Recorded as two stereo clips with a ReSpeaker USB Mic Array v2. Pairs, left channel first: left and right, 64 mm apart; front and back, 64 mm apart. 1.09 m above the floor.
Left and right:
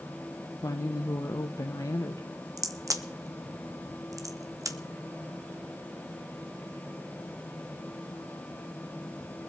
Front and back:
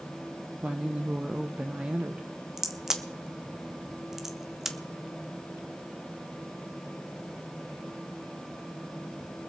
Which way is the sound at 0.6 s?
110° left.